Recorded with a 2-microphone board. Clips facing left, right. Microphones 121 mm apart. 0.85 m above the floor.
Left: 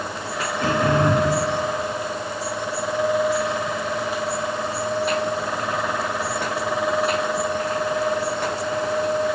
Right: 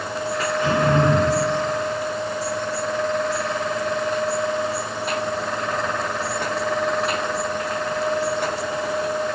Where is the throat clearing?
70° left (ahead or behind), 4 m.